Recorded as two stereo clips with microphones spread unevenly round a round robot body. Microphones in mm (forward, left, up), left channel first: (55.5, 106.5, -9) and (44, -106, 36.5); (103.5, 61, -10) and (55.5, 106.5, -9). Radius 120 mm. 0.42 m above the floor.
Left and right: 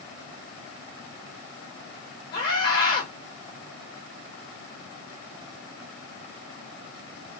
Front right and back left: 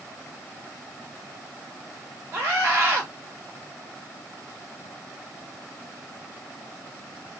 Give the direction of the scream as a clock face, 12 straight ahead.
9 o'clock.